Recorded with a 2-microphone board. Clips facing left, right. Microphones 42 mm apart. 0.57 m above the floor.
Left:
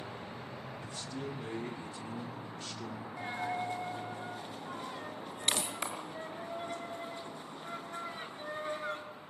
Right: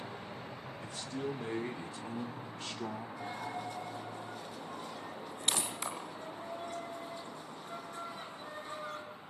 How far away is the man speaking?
About 2 m.